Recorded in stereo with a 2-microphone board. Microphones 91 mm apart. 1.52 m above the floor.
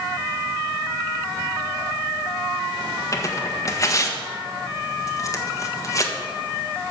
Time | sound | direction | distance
3.1 | tearing paper | 35° left (ahead or behind) | 1.5 m